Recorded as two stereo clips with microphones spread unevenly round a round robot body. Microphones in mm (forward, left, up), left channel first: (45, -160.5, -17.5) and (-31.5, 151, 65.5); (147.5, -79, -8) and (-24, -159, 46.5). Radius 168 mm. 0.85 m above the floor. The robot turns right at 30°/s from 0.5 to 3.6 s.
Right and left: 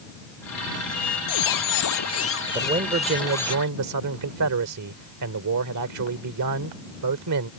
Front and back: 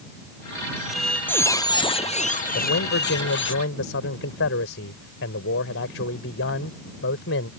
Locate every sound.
0.8 s a squeak: 70° right; by 3.5 s 10° left
2.5 s a man speaking: 30° left; by 7.5 s 60° left